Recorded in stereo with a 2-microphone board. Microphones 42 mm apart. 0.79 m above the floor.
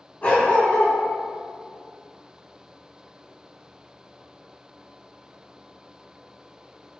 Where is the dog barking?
35° left (ahead or behind), 3 m.